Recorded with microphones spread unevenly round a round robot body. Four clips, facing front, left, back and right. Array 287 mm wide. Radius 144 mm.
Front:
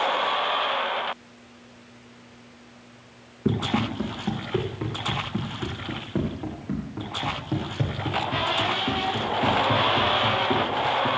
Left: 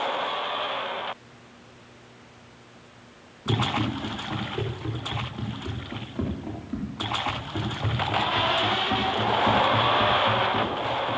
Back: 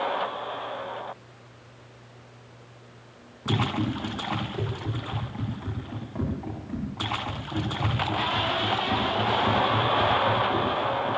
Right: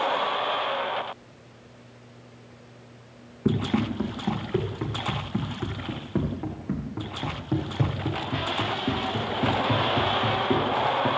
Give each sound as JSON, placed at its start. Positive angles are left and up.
{"t": 3.5, "sound": "running footsteps", "azimuth_deg": -55, "distance_m": 9.0}